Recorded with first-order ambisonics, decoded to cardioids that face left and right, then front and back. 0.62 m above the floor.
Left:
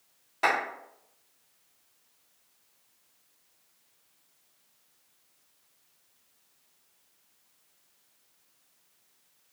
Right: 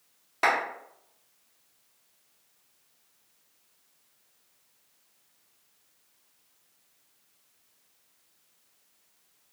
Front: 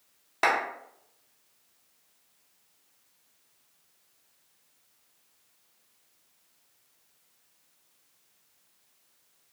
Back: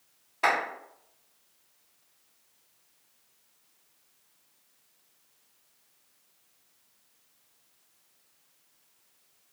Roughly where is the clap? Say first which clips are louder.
Right 1 dB, even; ahead.